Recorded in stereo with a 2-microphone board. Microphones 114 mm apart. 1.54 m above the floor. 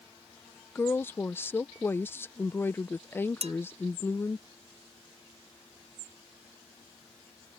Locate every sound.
0.8 s a woman speaking: 20° left (ahead or behind)
3.4 s dishes clattering: 65° right (ahead or behind)